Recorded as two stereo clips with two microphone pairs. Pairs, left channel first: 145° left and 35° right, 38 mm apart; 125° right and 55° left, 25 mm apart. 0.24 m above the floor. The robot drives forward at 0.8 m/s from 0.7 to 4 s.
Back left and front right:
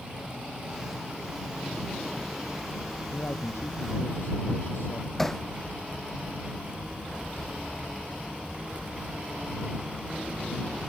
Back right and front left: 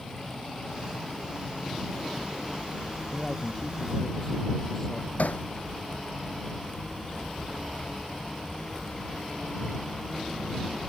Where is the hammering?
135° right.